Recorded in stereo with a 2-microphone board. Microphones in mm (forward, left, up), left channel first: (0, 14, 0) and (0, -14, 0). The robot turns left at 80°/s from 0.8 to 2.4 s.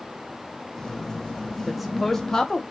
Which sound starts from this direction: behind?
A woman speaking, at 1.7 s.